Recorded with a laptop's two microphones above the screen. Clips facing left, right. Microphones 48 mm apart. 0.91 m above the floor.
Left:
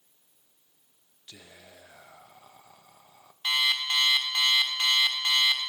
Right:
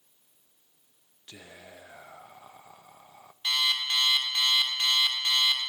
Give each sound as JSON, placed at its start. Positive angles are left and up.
{"t": 1.3, "sound": "whispering", "side_deg": -20, "distance_m": 0.6}
{"t": 3.4, "sound": "an alarm clock", "side_deg": 20, "distance_m": 1.4}